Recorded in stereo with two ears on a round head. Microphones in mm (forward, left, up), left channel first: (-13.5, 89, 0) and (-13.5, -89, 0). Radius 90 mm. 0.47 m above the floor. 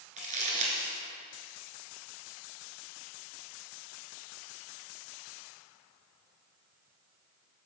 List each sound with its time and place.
0.2 s crumpling: 35° right (ahead or behind), 1.5 m